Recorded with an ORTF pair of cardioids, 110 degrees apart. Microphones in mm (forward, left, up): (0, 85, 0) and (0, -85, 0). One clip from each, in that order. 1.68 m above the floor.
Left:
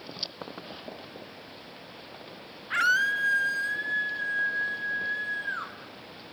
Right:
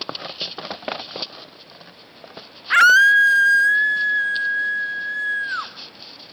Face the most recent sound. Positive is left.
turn(degrees=-55)